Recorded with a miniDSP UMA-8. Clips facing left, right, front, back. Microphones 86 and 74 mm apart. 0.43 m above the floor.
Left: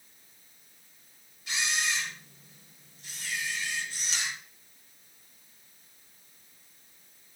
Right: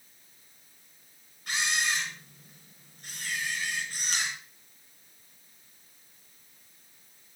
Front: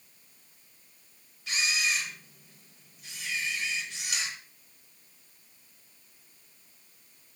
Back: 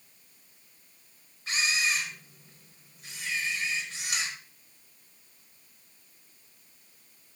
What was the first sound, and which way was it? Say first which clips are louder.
A camera shutter: right 2 dB, back 1 dB; 130° right.